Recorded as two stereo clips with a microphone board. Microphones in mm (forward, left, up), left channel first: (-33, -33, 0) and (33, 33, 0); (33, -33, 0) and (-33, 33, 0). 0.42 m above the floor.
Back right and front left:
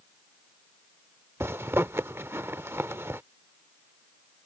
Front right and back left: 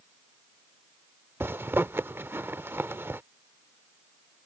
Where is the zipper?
90° left.